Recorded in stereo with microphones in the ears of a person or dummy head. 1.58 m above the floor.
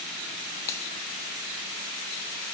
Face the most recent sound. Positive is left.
turn(degrees=15)  # may be behind; listen again after turning